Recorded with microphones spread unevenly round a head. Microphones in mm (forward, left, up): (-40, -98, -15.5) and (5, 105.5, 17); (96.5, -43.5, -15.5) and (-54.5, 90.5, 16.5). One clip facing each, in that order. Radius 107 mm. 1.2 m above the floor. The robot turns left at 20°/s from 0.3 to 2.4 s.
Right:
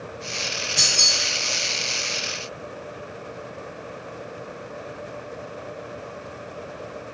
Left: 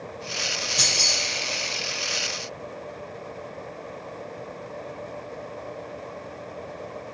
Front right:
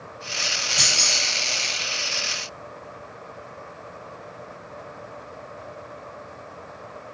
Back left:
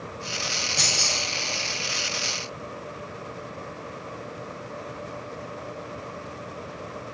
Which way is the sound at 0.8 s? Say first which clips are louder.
Even, even; 140° right.